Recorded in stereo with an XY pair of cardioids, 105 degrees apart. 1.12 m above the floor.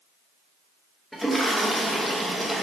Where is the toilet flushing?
5° right, 0.7 m.